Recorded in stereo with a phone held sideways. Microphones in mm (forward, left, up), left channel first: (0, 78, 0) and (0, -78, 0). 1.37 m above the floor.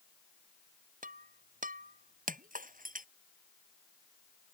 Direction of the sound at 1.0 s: 60° right (ahead or behind).